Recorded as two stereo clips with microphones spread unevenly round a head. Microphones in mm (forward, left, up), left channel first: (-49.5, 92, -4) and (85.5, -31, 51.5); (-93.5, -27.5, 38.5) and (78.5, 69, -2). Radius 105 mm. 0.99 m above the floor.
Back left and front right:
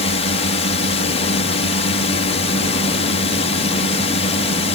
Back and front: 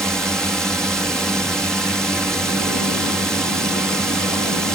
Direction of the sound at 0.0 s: 115° left.